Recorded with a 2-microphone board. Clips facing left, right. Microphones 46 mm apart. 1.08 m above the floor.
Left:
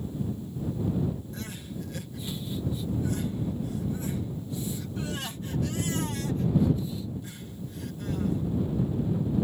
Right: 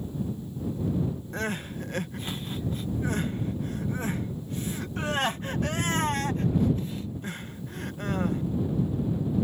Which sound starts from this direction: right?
Crying, at 1.3 s.